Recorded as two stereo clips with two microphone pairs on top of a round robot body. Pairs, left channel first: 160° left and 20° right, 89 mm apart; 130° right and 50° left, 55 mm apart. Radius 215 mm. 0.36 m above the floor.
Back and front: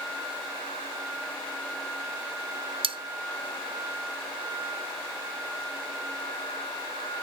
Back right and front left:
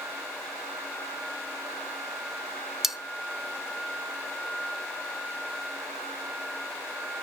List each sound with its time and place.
2.8 s cutlery clinking: 40° right, 0.8 m